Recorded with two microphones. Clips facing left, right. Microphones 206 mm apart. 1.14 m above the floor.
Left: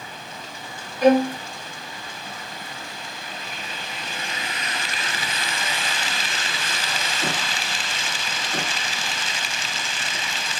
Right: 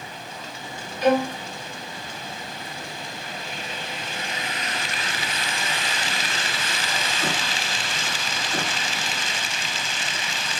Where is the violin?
50° left (ahead or behind), 2.5 m.